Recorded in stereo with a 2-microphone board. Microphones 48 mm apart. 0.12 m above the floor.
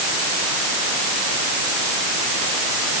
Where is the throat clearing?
No throat clearing in this recording.